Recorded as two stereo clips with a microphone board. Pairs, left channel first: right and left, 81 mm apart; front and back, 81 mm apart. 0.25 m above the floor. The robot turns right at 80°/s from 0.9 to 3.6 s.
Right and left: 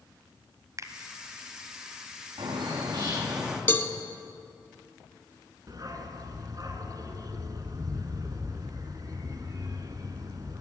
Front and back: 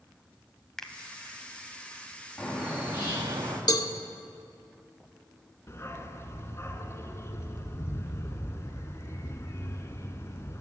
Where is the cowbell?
30° right, 0.9 m.